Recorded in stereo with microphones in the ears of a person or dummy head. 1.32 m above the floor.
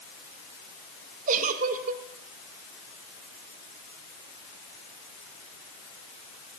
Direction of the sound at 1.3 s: 45° right (ahead or behind).